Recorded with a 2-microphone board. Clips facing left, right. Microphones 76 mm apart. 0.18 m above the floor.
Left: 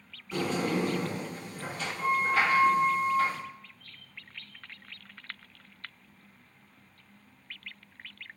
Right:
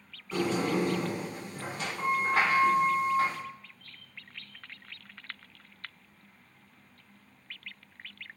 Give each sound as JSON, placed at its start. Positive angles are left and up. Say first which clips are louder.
{"t": 0.3, "sound": "a sliding door", "louder": "right 1 dB", "side_deg": -35, "distance_m": 1.8}